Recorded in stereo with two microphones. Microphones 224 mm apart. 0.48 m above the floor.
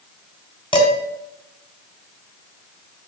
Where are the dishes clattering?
20° left (ahead or behind), 2 m.